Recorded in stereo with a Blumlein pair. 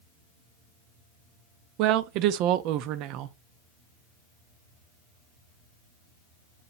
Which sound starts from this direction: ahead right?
A woman speaking, at 1.8 s.